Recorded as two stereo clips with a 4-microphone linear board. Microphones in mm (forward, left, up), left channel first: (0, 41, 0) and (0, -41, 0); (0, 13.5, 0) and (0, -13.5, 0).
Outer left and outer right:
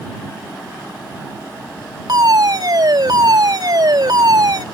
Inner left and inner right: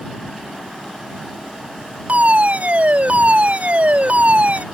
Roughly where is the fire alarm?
Right.